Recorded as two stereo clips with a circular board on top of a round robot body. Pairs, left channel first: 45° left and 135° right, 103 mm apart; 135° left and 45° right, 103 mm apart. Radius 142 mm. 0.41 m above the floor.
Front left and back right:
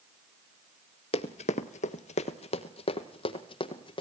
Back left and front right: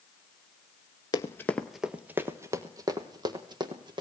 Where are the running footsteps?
80° left, 0.6 m; by 4.0 s straight ahead, 1.9 m.